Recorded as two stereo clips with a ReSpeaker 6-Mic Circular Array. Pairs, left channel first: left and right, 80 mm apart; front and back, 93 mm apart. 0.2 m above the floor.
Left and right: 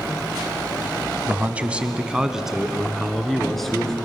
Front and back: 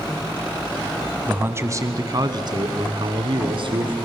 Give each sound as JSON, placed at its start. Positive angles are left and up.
{"t": 1.3, "sound": "a man speaking", "azimuth_deg": -130, "distance_m": 1.4}